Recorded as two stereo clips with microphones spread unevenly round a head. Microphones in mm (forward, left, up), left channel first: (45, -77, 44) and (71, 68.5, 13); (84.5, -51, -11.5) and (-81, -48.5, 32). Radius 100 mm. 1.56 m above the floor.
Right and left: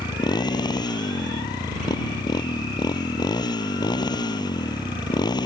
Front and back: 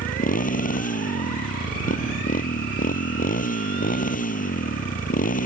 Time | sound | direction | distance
0.0 | a motorcycle | 40° right | ?